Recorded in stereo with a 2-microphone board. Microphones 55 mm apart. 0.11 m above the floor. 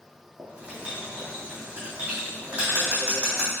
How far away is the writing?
About 3 m.